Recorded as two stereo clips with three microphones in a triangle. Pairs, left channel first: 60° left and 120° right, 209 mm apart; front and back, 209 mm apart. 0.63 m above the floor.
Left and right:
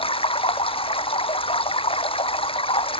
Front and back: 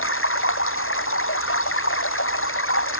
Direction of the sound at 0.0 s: 5° right.